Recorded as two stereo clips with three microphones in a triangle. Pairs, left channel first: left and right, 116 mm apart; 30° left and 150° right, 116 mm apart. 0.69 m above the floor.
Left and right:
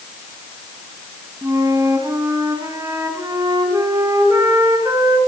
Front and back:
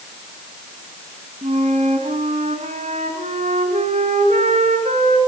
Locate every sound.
1.4 s a flute: 155° right, 3.5 m